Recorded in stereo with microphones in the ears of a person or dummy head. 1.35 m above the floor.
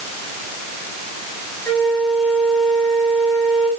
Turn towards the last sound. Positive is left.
turn(degrees=0)  # may be behind; listen again after turning